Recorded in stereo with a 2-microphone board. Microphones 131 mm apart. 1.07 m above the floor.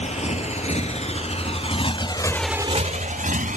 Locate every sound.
0.0 s a motorcycle: 60° left (ahead or behind); by 3.6 s 80° right